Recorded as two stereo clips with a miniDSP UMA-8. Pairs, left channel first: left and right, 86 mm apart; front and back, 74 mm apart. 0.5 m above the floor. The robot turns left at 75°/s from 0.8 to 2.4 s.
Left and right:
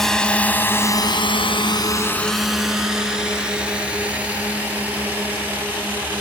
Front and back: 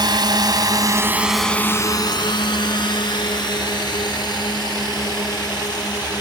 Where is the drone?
175° left; by 6.2 s 25° right.